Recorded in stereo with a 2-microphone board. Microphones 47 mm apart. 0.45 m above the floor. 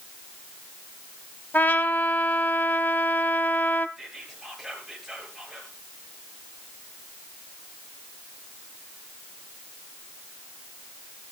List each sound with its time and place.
1.5 s a trumpet: 50° left (ahead or behind), 0.9 m
4.0 s whispering: 10° right (ahead or behind), 7 m